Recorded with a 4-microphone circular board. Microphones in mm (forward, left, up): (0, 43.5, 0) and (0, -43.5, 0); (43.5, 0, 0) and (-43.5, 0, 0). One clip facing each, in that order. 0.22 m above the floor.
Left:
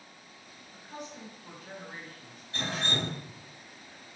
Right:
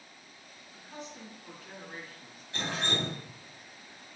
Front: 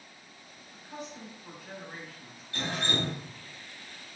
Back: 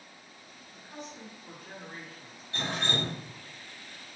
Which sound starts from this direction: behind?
Dripping, at 2.5 s.